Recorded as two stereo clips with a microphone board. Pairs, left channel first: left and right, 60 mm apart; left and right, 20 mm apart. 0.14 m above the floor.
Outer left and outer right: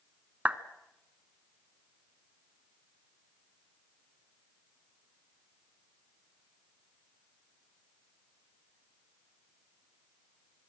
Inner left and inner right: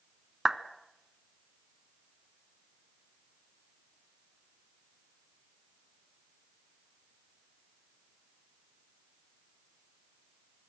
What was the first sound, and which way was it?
A clap, 25° right (ahead or behind).